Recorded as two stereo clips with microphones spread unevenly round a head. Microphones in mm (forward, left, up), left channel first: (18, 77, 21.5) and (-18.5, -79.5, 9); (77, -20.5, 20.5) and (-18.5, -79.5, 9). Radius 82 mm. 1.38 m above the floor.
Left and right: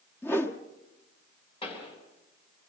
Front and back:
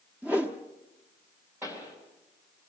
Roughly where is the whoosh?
Behind left.